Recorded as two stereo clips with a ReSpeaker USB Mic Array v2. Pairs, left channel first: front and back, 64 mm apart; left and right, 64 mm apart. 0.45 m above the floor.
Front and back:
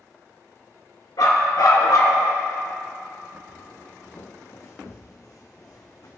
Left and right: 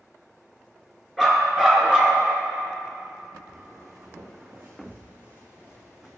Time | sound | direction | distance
1.2 | a dog barking | 5° right | 2.5 m
3.5 | footsteps | 55° right | 1.8 m